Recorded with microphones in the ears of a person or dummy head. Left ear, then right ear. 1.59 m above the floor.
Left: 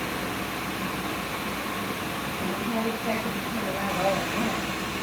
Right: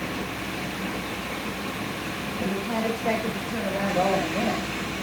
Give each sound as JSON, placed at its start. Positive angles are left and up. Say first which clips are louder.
{"t": 2.4, "sound": "a woman speaking", "louder": "right 2 dB", "side_deg": -60, "distance_m": 7.0}